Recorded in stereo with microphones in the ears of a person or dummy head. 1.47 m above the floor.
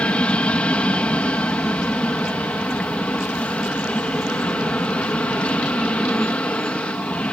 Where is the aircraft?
5° left (ahead or behind).